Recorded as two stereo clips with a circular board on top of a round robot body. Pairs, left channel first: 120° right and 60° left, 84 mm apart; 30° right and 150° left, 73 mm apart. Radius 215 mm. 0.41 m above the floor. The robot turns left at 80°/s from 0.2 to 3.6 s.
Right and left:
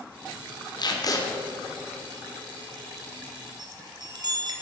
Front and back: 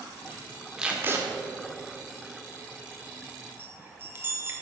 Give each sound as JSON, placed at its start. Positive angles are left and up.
{"t": 0.8, "sound": "tape being pulled", "azimuth_deg": -130, "distance_m": 2.0}
{"t": 3.6, "sound": "a chime", "azimuth_deg": 95, "distance_m": 1.9}